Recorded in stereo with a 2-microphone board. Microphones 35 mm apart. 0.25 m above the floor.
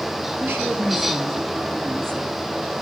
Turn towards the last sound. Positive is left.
turn(degrees=-75)  # may be behind; listen again after turning